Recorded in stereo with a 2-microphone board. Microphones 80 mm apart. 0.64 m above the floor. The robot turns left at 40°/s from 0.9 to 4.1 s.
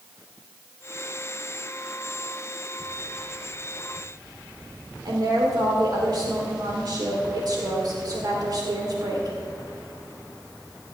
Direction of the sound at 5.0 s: 55° right (ahead or behind).